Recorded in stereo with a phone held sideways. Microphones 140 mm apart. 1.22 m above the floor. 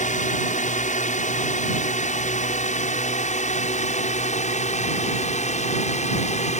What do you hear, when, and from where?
0.0 s a drone: 65° left (ahead or behind); by 6.6 s 55° left (ahead or behind)